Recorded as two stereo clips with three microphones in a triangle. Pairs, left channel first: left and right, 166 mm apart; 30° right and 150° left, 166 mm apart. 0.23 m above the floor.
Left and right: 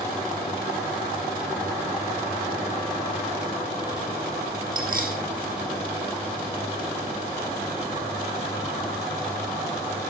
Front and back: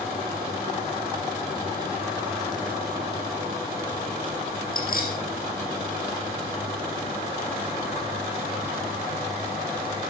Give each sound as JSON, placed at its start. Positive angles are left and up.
{"t": 4.7, "sound": "keys jangling", "azimuth_deg": -60, "distance_m": 5.5}